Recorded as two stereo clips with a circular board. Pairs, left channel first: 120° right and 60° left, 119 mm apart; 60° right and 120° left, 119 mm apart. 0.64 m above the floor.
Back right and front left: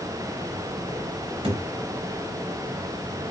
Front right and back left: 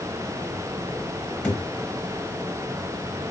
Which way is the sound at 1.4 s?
15° left.